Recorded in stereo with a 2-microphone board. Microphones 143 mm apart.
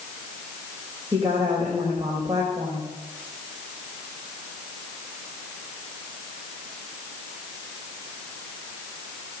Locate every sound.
1.1 s a woman speaking: 25° right (ahead or behind), 4 m